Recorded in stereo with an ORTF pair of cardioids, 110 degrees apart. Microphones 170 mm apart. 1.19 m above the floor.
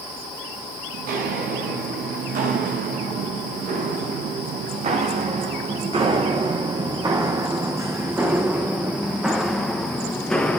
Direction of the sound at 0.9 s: 70° right.